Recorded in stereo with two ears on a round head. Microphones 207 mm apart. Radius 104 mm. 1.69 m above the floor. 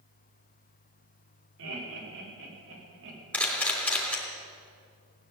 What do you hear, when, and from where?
1.6 s laughter: 60° right (ahead or behind), 5.5 m; by 3.2 s 55° right (ahead or behind), 4 m
3.3 s a camera shutter: 5° left (ahead or behind), 3 m